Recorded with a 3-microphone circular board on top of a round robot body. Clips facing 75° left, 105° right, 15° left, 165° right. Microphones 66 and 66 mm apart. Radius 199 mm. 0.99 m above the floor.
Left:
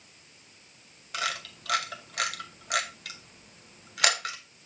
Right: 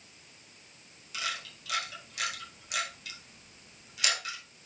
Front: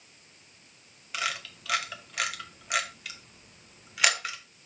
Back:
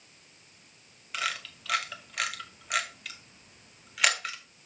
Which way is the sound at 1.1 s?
100° left.